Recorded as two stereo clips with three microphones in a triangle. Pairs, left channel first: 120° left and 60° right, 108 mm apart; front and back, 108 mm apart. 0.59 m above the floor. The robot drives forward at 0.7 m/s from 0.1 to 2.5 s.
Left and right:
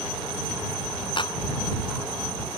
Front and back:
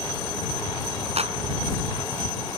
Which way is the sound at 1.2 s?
160° left.